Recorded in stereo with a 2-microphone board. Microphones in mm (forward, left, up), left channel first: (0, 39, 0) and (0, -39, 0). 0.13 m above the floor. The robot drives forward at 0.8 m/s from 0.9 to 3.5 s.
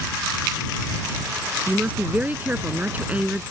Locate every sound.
1.7 s a woman speaking: 20° right (ahead or behind)